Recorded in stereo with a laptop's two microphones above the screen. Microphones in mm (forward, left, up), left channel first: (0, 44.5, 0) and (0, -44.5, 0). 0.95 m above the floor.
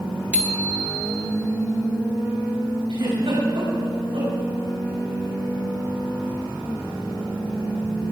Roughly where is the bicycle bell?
Centre.